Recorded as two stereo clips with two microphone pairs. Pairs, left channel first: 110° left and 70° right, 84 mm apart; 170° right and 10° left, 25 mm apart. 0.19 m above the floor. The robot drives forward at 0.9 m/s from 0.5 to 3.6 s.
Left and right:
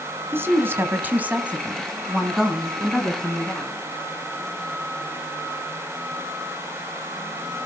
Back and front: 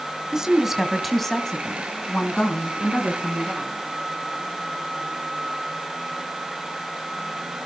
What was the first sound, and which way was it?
A woman speaking, 40° right.